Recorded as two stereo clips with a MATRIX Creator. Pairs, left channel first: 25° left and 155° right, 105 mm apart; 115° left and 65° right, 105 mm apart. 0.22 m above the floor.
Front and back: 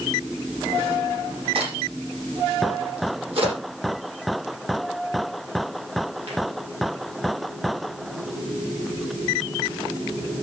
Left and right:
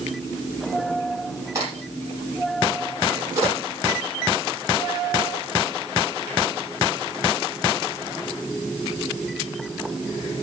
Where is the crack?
125° right, 10 m.